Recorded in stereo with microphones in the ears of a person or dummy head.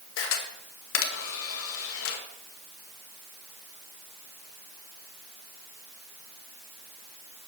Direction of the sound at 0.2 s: 70° left (ahead or behind).